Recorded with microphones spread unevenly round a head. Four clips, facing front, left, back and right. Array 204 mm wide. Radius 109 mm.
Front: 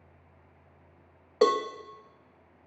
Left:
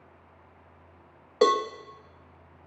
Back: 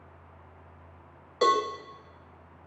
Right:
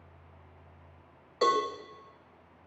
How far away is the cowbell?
About 1.5 m.